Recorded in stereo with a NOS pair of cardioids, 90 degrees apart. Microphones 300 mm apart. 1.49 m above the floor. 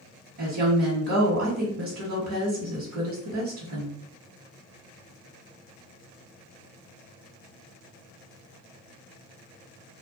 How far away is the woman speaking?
About 1.2 m.